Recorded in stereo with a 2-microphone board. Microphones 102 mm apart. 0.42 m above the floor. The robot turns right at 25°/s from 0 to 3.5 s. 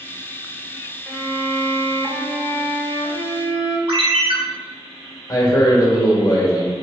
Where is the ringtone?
65° right (ahead or behind), 1.0 m.